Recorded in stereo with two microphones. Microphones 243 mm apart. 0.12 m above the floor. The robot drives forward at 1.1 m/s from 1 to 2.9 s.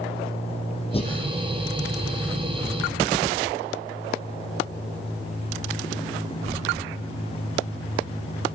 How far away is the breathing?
About 1.4 m.